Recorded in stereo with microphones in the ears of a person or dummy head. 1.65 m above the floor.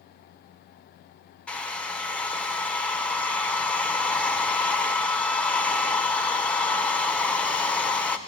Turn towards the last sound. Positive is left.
turn(degrees=5)  # may be behind; listen again after turning